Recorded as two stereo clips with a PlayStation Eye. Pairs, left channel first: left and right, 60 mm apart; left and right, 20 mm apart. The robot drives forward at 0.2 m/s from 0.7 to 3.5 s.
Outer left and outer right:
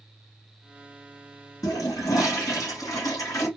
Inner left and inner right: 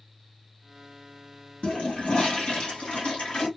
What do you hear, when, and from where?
1.6 s a toilet flushing: 80° left, 1.7 m; by 3.5 s 70° left (ahead or behind), 1.8 m